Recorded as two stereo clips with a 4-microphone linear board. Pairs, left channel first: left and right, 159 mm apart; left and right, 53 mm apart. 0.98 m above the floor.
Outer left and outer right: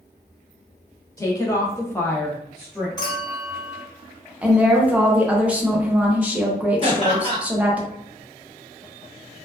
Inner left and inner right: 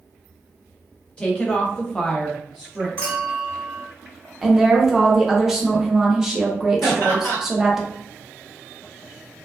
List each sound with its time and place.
1.2 s a woman speaking: 20° left (ahead or behind), 0.9 m; by 2.9 s 5° right (ahead or behind), 0.8 m
3.0 s a clink: 25° left (ahead or behind), 0.8 m
4.4 s a woman speaking: 10° right (ahead or behind), 0.5 m
6.8 s laughter: 40° left (ahead or behind), 1.3 m